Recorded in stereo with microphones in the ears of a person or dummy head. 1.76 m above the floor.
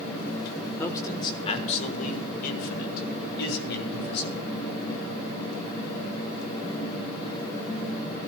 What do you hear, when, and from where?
0.8 s a man speaking: 10° left (ahead or behind), 1.3 m; by 4.6 s 70° left (ahead or behind), 3.5 m